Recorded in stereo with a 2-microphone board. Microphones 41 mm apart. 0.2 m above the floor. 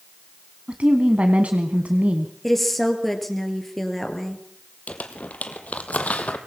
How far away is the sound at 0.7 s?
About 1.9 m.